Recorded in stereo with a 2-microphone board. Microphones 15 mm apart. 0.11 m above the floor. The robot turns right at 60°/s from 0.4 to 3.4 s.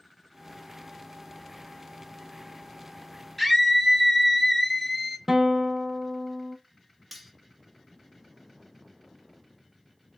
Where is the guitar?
15° right (ahead or behind), 0.5 m.